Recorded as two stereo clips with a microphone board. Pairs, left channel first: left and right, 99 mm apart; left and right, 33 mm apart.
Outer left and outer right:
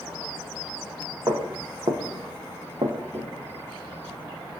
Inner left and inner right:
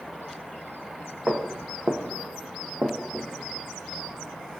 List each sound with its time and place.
1.3 s footsteps: 35° right (ahead or behind), 0.8 m; by 3.3 s 40° right (ahead or behind), 0.8 m